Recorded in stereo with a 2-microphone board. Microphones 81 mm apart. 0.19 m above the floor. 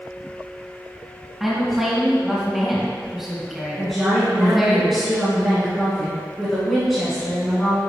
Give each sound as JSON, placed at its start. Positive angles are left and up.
{"t": 1.4, "sound": "a woman speaking", "side_deg": 0, "distance_m": 1.8}
{"t": 3.8, "sound": "a woman speaking", "side_deg": 0, "distance_m": 2.0}